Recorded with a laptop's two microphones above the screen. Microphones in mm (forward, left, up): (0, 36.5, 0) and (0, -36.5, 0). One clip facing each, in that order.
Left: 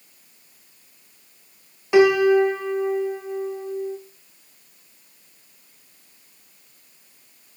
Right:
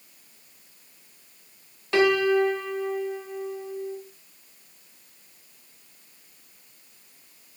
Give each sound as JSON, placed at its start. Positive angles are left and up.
{"t": 1.9, "sound": "a piano", "side_deg": 15, "distance_m": 0.8}